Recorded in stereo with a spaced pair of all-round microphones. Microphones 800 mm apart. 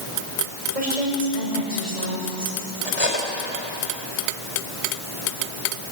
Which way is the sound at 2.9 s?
40° left (ahead or behind).